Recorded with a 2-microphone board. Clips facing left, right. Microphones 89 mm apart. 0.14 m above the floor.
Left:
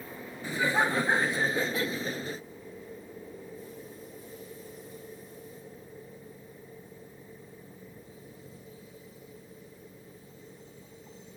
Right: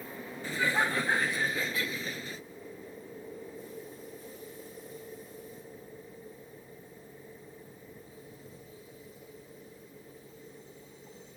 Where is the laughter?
15° left (ahead or behind); by 2.4 s 40° left (ahead or behind).